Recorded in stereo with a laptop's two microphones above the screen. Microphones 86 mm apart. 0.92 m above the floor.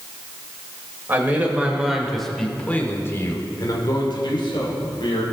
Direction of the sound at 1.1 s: 20° right (ahead or behind).